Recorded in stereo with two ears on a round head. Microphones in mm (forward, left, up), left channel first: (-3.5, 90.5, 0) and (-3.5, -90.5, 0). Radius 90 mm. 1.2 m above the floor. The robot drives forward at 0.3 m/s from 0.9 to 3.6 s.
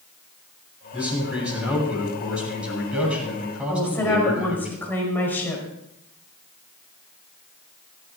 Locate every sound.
0.9 s a man speaking: 5° right (ahead or behind), 9.5 m
3.7 s a woman speaking: 10° left (ahead or behind), 5 m